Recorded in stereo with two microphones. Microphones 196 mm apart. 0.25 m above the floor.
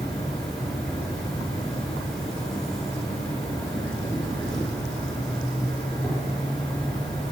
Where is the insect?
Centre (ahead or behind), 3.5 m.